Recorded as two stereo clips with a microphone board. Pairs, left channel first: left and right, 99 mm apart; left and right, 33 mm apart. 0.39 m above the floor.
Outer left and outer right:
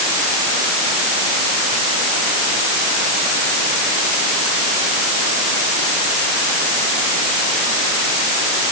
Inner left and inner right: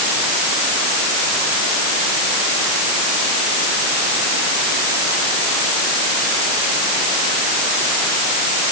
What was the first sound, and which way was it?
Only background noise.